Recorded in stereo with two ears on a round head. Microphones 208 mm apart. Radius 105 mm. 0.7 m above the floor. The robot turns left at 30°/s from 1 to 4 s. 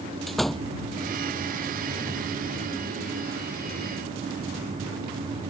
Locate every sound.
0.3 s a door slam: centre (ahead or behind)